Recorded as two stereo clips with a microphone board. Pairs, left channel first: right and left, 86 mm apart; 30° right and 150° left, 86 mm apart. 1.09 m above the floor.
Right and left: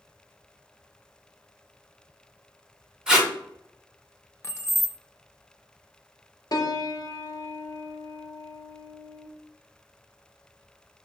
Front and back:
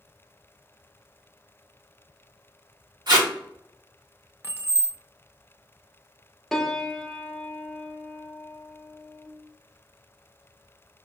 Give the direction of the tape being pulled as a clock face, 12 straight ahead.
6 o'clock.